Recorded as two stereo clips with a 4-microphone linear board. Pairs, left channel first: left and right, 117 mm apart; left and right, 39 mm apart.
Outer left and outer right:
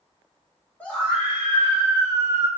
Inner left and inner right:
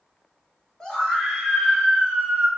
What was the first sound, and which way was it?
A scream, 15° left (ahead or behind).